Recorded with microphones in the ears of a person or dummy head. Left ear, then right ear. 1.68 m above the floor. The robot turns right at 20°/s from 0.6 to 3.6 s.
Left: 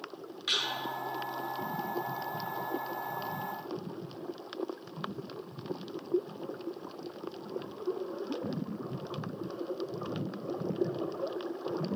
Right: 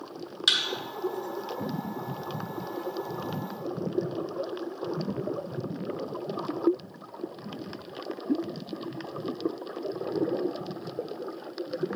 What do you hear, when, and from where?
0.5 s a thud: 65° right (ahead or behind), 3 m